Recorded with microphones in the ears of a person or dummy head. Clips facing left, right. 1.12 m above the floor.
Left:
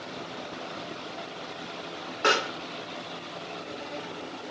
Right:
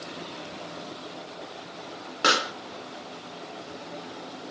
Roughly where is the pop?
Right.